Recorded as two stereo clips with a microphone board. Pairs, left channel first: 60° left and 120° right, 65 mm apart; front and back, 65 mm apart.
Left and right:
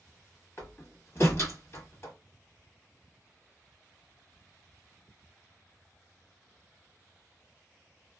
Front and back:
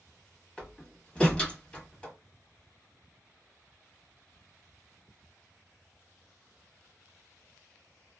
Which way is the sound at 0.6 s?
65° left.